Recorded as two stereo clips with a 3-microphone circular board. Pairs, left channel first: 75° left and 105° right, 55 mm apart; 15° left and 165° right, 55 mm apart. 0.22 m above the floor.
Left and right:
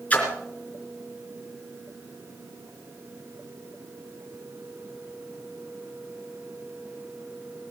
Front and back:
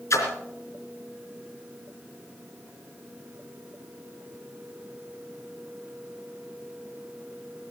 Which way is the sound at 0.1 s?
15° left.